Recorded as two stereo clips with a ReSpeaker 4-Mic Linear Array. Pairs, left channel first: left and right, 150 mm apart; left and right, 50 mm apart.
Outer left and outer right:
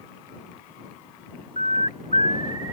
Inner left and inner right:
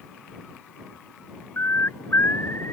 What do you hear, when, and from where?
1.6 s a bird: 55° left (ahead or behind)